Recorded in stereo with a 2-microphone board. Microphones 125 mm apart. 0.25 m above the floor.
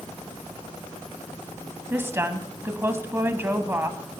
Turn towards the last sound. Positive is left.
turn(degrees=-20)  # may be behind; listen again after turning